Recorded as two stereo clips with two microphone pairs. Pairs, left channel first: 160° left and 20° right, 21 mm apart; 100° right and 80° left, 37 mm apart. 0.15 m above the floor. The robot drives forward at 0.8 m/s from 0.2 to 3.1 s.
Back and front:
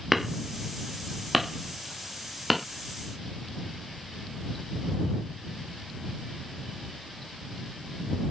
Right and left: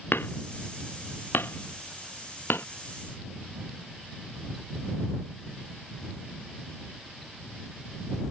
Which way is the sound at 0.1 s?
95° right.